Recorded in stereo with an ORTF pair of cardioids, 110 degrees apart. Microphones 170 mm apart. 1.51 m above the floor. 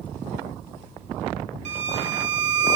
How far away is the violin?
About 1.7 m.